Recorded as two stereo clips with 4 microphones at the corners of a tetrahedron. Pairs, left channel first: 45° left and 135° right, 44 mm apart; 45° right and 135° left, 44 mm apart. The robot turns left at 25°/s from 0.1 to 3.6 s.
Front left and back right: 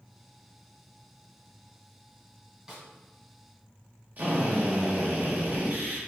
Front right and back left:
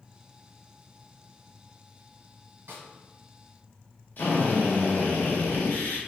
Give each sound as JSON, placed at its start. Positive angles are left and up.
{"t": 2.7, "sound": "a snare drum", "azimuth_deg": 150, "distance_m": 1.6}
{"t": 4.2, "sound": "a drill", "azimuth_deg": -85, "distance_m": 1.1}